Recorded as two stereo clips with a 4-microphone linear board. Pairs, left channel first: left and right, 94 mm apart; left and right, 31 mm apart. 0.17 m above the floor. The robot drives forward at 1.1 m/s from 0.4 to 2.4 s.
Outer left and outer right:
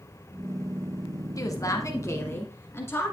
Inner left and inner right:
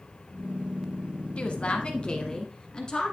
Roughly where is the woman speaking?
Left.